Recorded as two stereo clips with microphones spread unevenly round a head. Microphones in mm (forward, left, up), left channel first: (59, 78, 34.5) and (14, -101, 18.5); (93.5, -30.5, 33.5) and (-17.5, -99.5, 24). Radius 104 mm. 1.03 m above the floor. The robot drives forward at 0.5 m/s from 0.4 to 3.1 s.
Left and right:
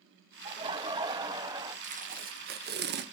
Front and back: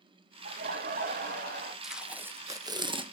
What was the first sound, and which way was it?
Laughter, 170° right.